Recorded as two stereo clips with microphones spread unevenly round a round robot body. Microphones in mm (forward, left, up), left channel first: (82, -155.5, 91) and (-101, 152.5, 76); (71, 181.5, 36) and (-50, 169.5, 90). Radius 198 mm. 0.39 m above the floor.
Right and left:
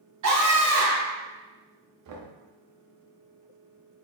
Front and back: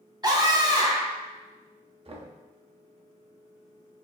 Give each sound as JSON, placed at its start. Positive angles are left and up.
{"t": 0.2, "sound": "a scream", "azimuth_deg": 110, "distance_m": 1.4}
{"t": 2.0, "sound": "knocking", "azimuth_deg": 120, "distance_m": 0.7}